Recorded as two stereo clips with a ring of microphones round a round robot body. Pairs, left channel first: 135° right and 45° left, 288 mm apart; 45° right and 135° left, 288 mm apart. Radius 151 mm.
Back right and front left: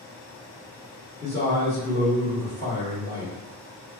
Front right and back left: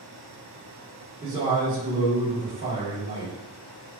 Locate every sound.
1.2 s a man speaking: 165° left, 1.4 m